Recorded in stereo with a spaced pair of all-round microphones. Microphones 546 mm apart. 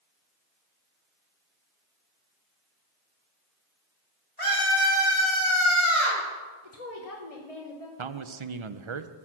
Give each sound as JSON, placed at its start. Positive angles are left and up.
{"t": 4.4, "sound": "a scream", "side_deg": 65, "distance_m": 6.0}
{"t": 6.6, "sound": "a woman speaking", "side_deg": 80, "distance_m": 1.1}
{"t": 8.0, "sound": "a man speaking", "side_deg": -55, "distance_m": 0.7}